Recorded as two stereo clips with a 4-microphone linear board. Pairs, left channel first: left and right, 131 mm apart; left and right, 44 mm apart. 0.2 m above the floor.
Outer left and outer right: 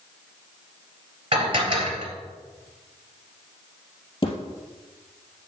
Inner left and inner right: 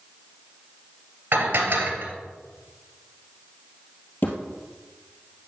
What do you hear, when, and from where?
1.3 s dishes clattering: 45° right (ahead or behind), 2.5 m
4.2 s a thud: 45° left (ahead or behind), 3 m